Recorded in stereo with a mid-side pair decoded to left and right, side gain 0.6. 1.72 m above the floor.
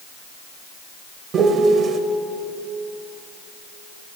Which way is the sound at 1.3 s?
45° right.